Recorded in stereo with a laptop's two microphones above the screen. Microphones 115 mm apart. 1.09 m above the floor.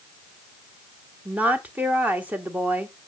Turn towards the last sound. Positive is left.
turn(degrees=-15)  # may be behind; listen again after turning